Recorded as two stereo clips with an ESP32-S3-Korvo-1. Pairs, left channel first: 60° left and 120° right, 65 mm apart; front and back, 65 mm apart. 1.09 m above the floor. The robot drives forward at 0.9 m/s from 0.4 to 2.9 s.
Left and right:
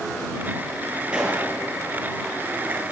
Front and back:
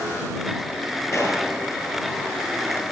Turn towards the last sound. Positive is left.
turn(degrees=-50)